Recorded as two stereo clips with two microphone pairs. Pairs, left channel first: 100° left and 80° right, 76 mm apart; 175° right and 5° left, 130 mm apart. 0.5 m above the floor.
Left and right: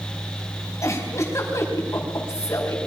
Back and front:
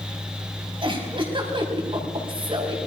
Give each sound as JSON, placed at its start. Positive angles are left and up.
{"t": 0.8, "sound": "a giggle", "azimuth_deg": 50, "distance_m": 4.0}